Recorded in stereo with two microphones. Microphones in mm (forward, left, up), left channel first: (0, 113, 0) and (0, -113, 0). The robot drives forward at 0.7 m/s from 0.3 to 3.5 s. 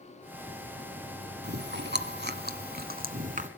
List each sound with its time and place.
1.4 s chewing: 50° right (ahead or behind), 1.2 m; by 3.5 s 35° right (ahead or behind), 1.6 m